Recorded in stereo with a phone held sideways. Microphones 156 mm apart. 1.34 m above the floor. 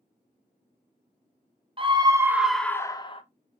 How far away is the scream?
About 0.7 m.